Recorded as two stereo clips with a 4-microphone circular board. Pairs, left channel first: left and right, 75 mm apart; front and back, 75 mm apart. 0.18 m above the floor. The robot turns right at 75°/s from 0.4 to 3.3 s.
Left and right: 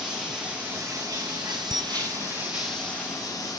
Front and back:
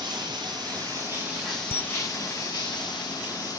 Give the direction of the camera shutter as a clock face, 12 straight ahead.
10 o'clock.